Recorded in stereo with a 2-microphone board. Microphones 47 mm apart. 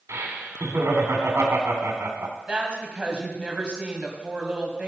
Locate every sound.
0.1 s laughter: 70° right (ahead or behind), 2.5 m
2.5 s a woman speaking: 20° right (ahead or behind), 2 m